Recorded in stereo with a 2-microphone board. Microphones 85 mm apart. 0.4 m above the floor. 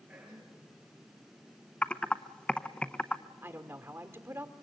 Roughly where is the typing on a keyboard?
Centre.